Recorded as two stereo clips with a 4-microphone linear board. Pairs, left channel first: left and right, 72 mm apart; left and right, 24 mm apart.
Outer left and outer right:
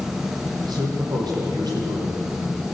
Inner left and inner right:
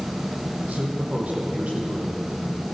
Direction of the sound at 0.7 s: 70° right (ahead or behind).